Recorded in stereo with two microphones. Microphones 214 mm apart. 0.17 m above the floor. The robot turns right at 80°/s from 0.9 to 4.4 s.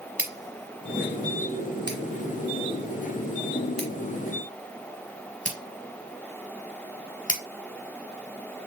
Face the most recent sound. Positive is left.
turn(degrees=35)  # may be behind; listen again after turning